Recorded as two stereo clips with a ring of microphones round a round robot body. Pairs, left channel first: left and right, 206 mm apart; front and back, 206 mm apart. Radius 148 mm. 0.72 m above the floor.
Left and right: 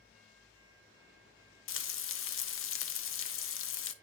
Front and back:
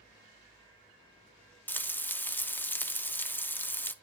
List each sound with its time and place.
1.7 s frying: 80° left, 1.0 m